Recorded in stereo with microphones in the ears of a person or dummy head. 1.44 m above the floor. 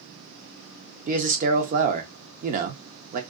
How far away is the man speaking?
About 0.8 m.